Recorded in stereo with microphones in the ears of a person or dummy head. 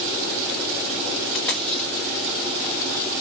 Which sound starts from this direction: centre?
A dropped coin, at 1.2 s.